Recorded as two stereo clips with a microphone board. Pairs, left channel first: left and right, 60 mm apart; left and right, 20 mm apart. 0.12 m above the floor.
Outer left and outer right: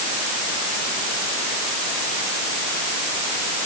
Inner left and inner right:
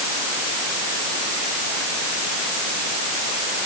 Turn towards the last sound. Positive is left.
No sound to turn to.